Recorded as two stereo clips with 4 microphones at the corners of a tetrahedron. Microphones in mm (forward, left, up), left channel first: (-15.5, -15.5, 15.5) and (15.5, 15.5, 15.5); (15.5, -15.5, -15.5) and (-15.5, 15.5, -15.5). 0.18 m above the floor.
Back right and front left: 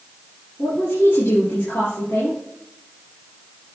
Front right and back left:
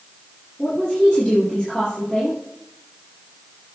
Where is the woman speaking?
130° right, 4.5 m.